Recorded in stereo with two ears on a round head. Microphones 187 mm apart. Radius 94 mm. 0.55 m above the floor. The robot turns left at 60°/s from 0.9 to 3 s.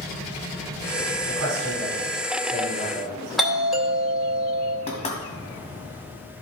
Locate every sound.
1.3 s a man speaking: 75° right, 4.5 m; by 3.2 s straight behind, 4.5 m
3.4 s a doorbell: centre (ahead or behind), 2.5 m
4.9 s knocking: 30° left (ahead or behind), 2 m